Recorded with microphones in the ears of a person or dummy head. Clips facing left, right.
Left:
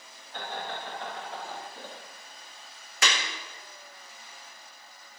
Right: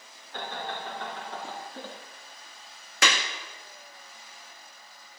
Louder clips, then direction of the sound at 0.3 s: Right 1 dB; 65° right (ahead or behind).